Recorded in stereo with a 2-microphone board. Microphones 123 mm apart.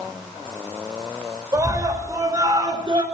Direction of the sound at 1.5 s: 25° right (ahead or behind).